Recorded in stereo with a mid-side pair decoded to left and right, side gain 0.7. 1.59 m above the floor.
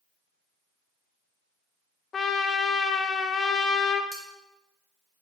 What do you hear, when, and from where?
2.1 s a trumpet: 30° left, 0.7 m
4.1 s cutlery clinking: 5° right, 2 m